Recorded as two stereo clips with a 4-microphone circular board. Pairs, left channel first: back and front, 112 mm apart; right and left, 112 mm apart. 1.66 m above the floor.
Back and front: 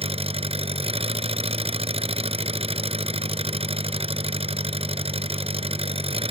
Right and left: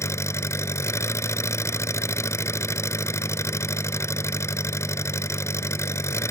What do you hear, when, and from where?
0.0 s an engine running: 25° right